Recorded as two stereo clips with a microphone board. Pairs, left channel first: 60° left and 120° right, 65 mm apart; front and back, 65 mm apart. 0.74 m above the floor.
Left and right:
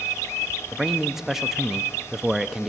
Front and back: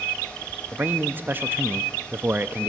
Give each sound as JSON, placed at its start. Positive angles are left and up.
{"t": 0.7, "sound": "a man speaking", "azimuth_deg": 160, "distance_m": 0.6}